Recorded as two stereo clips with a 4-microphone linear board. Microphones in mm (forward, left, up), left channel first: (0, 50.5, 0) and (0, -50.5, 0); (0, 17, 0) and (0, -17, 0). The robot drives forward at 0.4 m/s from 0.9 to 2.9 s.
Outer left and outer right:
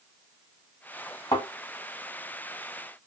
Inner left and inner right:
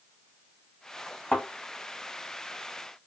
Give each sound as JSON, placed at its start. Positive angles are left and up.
{"t": 1.3, "sound": "a thud", "side_deg": 45, "distance_m": 1.6}